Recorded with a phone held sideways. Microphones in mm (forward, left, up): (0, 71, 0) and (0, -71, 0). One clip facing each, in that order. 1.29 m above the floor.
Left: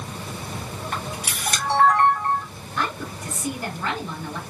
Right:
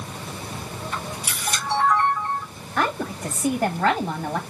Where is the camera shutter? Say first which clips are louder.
Left 1 dB; 75° left (ahead or behind), 3 m.